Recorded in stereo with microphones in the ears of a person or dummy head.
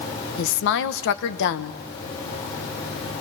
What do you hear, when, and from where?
0.4 s a woman speaking: 70° left (ahead or behind), 1.4 m